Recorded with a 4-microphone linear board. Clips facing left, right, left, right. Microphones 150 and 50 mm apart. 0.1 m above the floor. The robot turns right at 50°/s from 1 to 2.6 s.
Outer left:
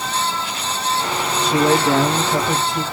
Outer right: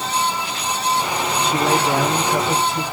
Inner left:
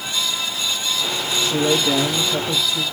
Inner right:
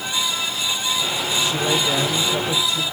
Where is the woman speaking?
100° left, 6.5 m; by 2.8 s 165° left, 6.5 m.